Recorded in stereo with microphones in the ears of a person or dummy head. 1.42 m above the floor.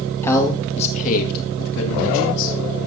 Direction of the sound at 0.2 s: 15° left (ahead or behind).